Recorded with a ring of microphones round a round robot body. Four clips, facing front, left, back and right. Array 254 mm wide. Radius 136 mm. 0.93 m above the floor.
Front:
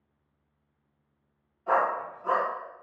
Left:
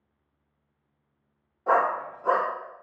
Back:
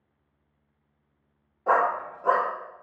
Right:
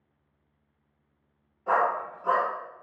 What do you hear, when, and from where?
1.7 s a dog barking: 155° left, 0.7 m